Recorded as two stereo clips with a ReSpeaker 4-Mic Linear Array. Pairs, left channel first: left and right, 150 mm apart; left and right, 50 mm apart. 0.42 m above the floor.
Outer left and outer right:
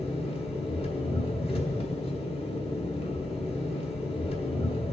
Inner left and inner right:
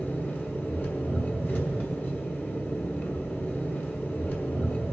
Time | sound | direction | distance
0.0 | an engine running | 40° left (ahead or behind) | 1.3 m